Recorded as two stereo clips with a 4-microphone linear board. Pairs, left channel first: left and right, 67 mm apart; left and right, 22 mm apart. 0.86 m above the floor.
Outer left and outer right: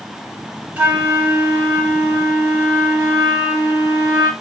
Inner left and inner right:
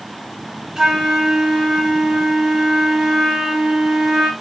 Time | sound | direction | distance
0.8 | a flute | 20° right (ahead or behind) | 4 m